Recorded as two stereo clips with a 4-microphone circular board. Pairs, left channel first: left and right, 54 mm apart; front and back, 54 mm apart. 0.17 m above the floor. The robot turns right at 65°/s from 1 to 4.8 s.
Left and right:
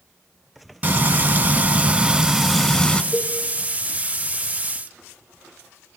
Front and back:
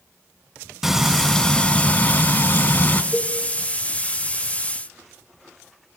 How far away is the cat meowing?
I don't hear a cat meowing.